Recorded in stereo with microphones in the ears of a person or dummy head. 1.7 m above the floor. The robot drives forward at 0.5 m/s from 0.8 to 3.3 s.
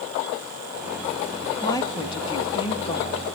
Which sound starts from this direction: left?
A woman speaking, at 1.6 s.